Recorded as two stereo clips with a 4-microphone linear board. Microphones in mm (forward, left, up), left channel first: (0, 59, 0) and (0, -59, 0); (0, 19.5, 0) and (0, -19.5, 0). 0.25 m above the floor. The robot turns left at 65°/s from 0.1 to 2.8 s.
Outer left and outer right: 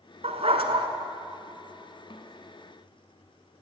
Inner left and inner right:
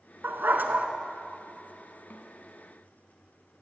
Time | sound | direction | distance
0.2 | a dog barking | 90° right | 1.0 m
2.1 | a snare drum | 55° left (ahead or behind) | 1.1 m